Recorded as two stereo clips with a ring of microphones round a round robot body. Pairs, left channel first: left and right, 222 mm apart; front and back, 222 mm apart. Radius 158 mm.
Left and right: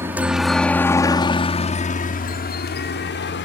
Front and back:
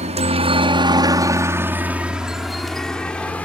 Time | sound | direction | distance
0.0 | a helicopter | 160° right | ?